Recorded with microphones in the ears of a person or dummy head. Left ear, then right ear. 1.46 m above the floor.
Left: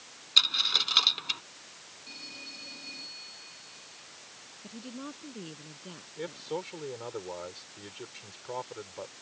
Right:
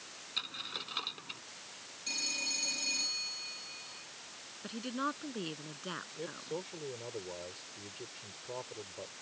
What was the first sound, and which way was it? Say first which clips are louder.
A dropped coin: left 16 dB; 75° left (ahead or behind).